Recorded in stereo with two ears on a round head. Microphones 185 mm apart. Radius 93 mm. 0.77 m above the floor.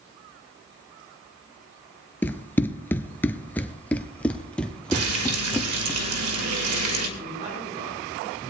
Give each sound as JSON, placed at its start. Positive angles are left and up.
{"t": 2.2, "sound": "running footsteps", "side_deg": 10, "distance_m": 0.8}
{"t": 4.9, "sound": "frying", "side_deg": -85, "distance_m": 2.0}
{"t": 7.2, "sound": "a man speaking", "side_deg": -35, "distance_m": 10.0}